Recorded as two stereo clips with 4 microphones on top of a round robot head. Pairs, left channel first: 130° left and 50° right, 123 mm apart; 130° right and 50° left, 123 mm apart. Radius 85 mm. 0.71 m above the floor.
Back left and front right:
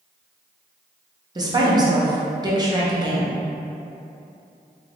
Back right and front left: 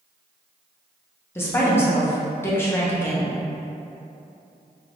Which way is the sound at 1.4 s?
75° right.